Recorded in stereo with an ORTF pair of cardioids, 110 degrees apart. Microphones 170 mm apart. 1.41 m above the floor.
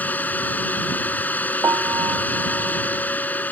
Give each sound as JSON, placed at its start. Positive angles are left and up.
{"t": 0.0, "sound": "a fan", "azimuth_deg": 10}
{"t": 1.6, "sound": "a piano", "azimuth_deg": -20}